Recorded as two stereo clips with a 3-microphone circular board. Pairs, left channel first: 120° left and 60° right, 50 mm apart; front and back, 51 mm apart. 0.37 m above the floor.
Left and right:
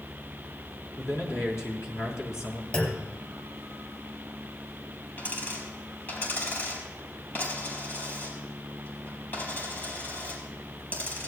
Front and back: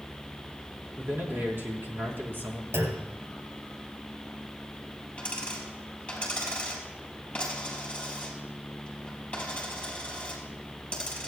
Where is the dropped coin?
65° left, 4.5 m.